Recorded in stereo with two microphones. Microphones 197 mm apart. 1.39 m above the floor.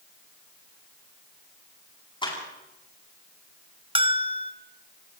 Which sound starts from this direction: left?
A clap, at 2.2 s.